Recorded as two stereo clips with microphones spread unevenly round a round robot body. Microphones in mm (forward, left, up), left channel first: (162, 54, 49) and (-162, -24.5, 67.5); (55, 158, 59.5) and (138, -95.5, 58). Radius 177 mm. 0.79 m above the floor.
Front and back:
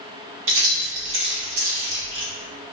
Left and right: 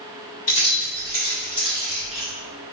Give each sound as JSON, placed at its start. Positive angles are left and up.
{"t": 0.5, "sound": "keys jangling", "azimuth_deg": 155, "distance_m": 1.2}